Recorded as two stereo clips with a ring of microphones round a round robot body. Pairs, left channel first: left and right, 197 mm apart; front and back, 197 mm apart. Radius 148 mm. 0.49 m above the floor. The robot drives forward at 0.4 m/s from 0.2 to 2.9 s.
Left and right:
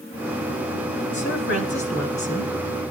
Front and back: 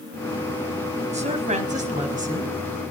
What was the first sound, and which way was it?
A woman speaking, 125° left.